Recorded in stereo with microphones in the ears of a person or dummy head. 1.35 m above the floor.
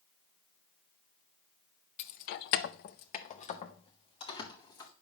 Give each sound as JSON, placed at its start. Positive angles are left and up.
{"t": 2.0, "sound": "keys jangling", "side_deg": 35, "distance_m": 0.7}